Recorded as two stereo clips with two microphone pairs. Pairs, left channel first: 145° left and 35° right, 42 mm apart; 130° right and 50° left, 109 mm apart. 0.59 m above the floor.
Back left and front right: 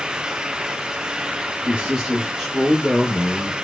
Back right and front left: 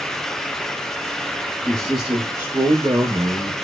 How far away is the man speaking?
About 1.0 m.